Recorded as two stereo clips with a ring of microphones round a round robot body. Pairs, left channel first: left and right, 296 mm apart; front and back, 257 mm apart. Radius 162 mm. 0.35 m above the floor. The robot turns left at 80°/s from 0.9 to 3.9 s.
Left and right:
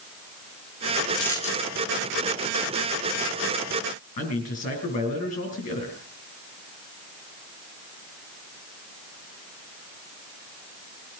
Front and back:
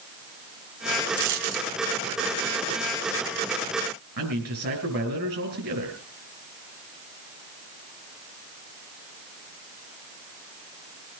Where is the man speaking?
155° left, 5 m.